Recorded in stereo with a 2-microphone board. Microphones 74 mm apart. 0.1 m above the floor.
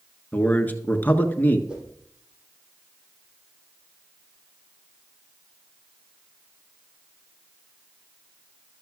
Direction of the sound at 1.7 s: 15° right (ahead or behind).